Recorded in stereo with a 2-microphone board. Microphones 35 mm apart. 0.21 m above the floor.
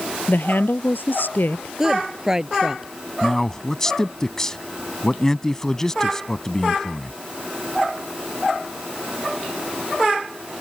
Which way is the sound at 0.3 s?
70° left (ahead or behind).